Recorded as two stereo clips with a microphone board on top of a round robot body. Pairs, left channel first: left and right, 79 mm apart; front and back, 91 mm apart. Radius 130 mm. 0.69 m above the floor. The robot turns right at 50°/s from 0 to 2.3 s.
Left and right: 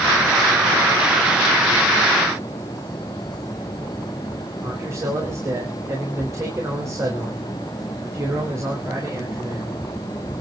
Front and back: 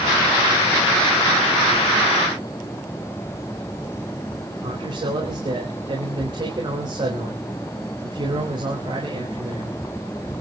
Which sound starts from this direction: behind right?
A man speaking, at 4.6 s.